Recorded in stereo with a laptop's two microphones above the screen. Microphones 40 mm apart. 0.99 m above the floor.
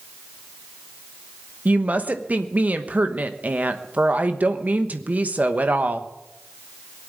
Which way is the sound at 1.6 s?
40° right (ahead or behind).